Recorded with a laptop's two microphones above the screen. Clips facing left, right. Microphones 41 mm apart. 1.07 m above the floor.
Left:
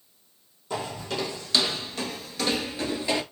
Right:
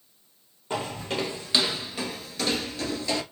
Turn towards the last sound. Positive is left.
turn(degrees=25)  # may be behind; listen again after turning